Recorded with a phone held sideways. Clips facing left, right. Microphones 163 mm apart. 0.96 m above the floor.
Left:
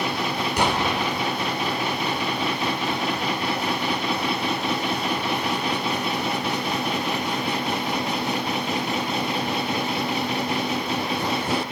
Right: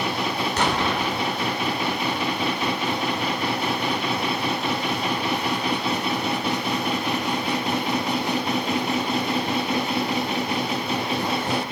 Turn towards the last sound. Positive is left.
turn(degrees=10)  # may be behind; listen again after turning